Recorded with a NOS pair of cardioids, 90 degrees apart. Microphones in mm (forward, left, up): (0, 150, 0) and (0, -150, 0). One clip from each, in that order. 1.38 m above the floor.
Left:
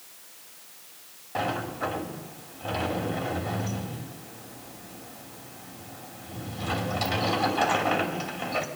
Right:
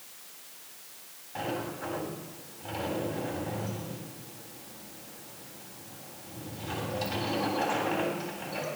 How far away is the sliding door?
About 3 m.